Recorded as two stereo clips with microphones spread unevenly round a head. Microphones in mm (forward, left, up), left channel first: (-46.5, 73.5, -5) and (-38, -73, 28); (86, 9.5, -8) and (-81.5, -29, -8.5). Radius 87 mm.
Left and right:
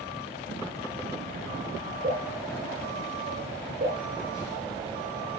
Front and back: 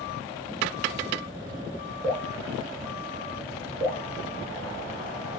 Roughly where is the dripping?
Right.